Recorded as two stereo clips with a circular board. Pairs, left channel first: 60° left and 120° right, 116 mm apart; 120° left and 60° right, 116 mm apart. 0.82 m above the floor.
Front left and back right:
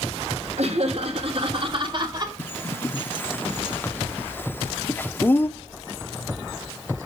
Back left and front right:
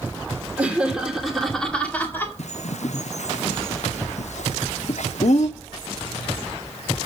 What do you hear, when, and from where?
0.6 s laughter: 140° right, 2.5 m; by 2.4 s 170° right, 2 m
2.4 s a bird: 135° left, 0.7 m